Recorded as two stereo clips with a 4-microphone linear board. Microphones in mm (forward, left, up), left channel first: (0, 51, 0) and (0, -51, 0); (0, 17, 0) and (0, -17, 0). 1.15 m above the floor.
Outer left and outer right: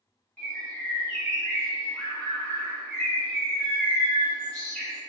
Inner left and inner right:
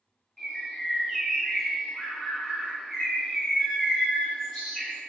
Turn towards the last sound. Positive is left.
turn(degrees=10)  # may be behind; listen again after turning